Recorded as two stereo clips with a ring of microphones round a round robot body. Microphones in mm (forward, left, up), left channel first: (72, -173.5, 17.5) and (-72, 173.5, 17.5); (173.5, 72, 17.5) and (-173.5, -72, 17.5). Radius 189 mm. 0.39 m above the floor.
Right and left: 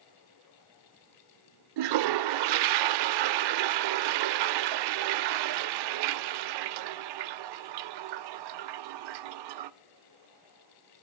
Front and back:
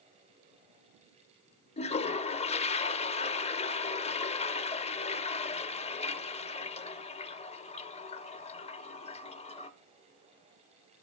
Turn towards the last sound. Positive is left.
turn(degrees=95)